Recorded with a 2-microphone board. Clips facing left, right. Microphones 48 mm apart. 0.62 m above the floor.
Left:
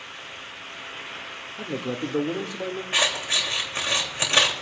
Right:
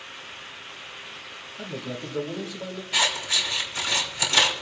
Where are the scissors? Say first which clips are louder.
Even; 40° left (ahead or behind), 3 m.